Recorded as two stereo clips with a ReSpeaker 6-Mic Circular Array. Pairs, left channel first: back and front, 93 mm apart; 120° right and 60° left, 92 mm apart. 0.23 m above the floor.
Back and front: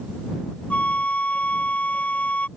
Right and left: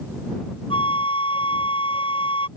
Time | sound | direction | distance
0.7 | a flute | 105° right | ?